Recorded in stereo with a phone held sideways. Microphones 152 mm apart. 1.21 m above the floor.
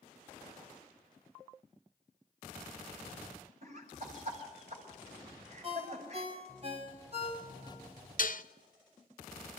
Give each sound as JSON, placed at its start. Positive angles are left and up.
{"t": 3.6, "sound": "laughter", "side_deg": -50, "distance_m": 6.5}
{"t": 5.6, "sound": "a ringtone", "side_deg": -40, "distance_m": 5.0}
{"t": 8.2, "sound": "dishes clattering", "side_deg": 65, "distance_m": 0.6}